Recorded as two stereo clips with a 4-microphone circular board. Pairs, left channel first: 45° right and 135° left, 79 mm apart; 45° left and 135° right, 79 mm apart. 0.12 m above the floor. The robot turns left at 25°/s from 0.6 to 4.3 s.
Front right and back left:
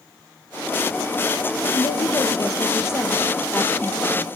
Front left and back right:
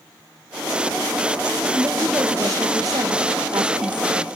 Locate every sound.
1.7 s a woman speaking: 70° right, 3 m; by 4.3 s 130° right, 3 m